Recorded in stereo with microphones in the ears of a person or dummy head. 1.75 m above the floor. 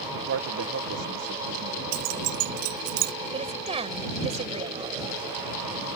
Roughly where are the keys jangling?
Right.